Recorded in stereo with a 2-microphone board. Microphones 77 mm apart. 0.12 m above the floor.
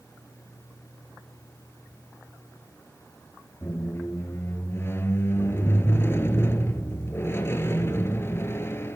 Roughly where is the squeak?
Left.